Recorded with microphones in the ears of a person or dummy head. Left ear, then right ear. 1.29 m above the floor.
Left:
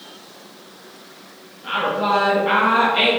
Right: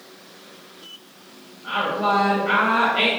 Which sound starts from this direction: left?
A woman speaking, at 1.6 s.